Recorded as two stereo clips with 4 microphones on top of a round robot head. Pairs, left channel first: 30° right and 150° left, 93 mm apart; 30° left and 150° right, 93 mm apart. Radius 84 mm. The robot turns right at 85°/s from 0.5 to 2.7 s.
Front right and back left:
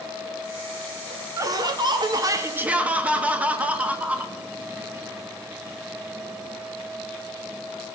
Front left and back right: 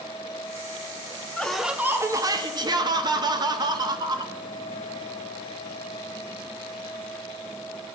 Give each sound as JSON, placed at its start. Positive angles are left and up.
{"t": 1.4, "sound": "laughter", "azimuth_deg": 105, "distance_m": 1.0}